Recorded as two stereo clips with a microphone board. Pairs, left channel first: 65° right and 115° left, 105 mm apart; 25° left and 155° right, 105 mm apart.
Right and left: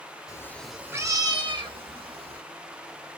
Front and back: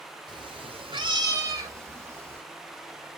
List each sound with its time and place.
0.3 s a cat meowing: 120° right, 0.6 m; by 2.4 s 135° left, 1.6 m